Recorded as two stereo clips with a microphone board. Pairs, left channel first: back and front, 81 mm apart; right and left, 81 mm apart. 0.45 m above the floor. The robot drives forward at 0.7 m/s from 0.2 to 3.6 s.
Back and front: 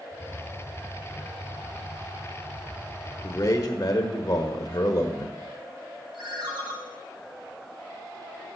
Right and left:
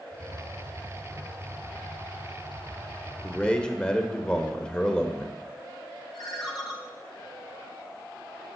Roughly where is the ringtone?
Ahead.